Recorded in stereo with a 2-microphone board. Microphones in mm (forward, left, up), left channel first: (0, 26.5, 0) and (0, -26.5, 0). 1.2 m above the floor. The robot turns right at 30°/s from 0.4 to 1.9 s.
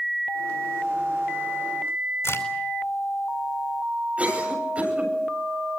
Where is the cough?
25° right (ahead or behind), 8 m.